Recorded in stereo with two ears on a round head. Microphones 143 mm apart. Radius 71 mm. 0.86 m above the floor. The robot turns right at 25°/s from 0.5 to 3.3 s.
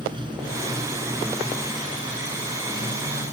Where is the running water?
30° right; by 3.3 s 40° left.